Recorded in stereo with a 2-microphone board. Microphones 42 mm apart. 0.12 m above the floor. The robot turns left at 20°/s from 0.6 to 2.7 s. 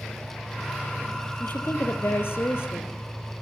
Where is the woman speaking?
50° left (ahead or behind), 3.5 m; by 2.9 s 65° left (ahead or behind), 3.5 m.